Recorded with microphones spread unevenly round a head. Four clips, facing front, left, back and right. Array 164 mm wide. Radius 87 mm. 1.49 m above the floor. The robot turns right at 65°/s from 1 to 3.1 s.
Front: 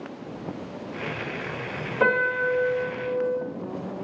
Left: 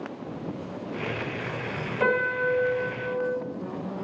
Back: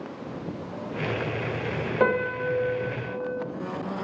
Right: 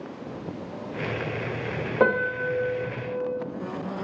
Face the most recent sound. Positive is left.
turn(degrees=-30)